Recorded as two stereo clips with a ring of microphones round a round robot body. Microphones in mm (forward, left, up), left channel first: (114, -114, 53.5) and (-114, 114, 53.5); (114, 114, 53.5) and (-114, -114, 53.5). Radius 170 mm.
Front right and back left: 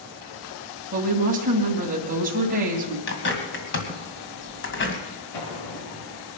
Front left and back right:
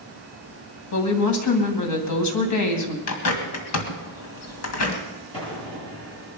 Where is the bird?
5° left, 2 m.